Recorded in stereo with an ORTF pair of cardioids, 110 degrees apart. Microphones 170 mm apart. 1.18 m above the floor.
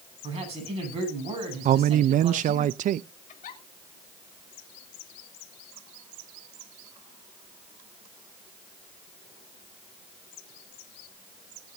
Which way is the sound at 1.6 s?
55° right.